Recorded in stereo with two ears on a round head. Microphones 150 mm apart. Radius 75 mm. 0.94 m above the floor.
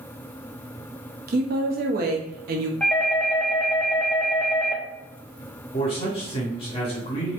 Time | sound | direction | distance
1.3 | a woman speaking | 60° right (ahead or behind) | 0.9 m
2.8 | a doorbell | 10° left (ahead or behind) | 0.8 m
5.7 | a man speaking | 40° left (ahead or behind) | 2 m